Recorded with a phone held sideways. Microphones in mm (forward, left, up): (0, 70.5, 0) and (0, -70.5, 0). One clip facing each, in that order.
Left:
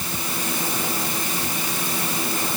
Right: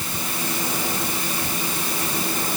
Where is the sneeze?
I don't hear a sneeze.